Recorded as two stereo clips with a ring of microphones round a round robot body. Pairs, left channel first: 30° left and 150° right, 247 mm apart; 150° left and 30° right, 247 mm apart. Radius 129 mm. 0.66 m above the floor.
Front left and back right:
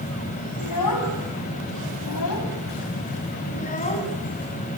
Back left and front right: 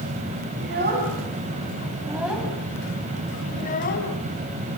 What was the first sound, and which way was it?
A child speaking, 20° left.